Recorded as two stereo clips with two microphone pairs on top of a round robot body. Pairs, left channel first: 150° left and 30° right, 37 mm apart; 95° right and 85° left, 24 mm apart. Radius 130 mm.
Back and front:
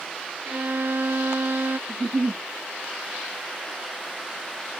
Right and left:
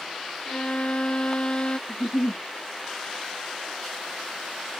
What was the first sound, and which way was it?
A violin, 55° right.